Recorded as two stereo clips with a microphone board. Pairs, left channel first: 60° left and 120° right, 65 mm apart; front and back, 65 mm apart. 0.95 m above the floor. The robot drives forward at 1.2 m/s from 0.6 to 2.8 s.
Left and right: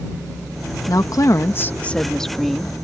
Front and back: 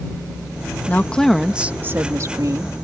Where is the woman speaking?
55° left; by 2.9 s 155° left.